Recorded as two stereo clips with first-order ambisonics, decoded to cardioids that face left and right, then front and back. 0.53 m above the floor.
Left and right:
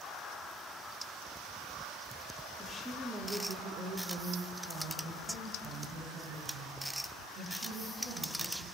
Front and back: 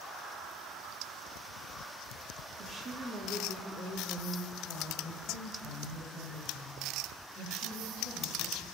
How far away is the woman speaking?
About 1.1 m.